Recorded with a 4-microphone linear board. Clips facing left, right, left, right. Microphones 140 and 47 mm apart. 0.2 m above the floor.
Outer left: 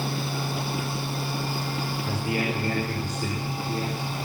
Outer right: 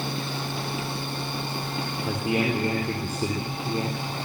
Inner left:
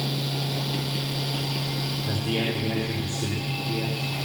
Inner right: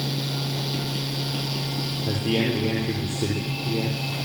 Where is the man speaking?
30° right (ahead or behind), 6 m.